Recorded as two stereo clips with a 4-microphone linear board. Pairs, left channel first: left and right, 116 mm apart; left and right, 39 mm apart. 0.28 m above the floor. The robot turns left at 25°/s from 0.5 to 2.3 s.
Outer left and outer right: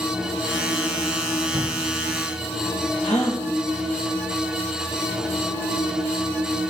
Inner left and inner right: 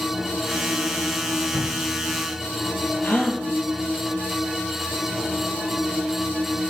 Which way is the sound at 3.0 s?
85° left.